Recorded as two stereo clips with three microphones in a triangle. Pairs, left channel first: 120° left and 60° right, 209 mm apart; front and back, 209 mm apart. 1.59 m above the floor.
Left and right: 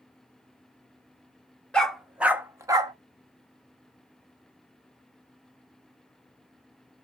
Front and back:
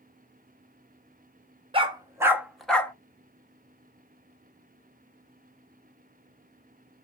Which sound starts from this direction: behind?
A dog barking, at 1.7 s.